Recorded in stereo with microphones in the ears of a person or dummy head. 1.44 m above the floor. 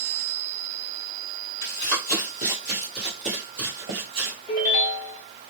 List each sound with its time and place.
1.6 s running footsteps: 25° left (ahead or behind), 1.7 m; by 4.4 s 30° right (ahead or behind), 1.6 m
4.5 s a ringtone: 25° left (ahead or behind), 1.1 m